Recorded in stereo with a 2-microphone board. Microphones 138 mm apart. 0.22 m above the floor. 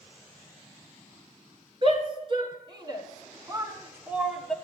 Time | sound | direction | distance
1.8 | a shout | 40° right (ahead or behind) | 2.5 m